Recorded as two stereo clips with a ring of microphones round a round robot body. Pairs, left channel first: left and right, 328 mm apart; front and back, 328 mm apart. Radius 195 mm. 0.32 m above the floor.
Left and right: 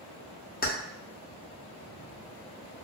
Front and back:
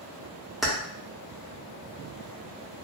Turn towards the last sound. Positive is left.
turn(degrees=90)